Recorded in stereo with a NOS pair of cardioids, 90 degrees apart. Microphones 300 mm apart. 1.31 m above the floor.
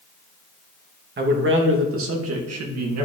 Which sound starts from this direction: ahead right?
A man speaking, at 1.2 s.